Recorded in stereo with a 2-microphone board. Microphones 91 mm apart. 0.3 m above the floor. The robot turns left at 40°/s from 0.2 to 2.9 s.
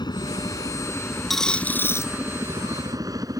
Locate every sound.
0.0 s a helicopter: 50° left (ahead or behind); by 3.4 s 40° right (ahead or behind)
1.3 s a dropped coin: straight behind; by 2.1 s 145° left